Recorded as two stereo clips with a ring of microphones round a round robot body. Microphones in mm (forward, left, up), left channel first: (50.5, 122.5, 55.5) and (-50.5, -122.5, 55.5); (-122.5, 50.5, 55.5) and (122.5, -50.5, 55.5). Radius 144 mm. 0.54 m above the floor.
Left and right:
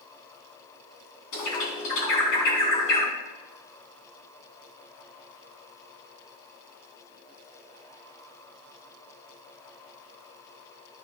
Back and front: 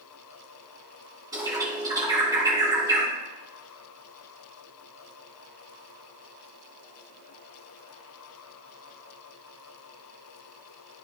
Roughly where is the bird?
Ahead left.